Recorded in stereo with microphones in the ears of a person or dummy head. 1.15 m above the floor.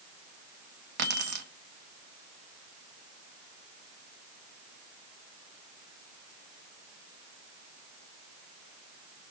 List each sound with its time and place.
1.0 s keys jangling: 45° right (ahead or behind), 1.2 m